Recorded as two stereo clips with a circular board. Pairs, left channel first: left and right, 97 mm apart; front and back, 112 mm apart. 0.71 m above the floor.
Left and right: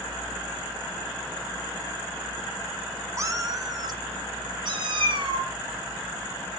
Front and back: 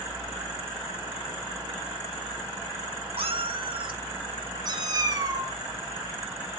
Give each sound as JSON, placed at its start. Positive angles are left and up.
{"t": 3.2, "sound": "a cat meowing", "azimuth_deg": -150, "distance_m": 0.9}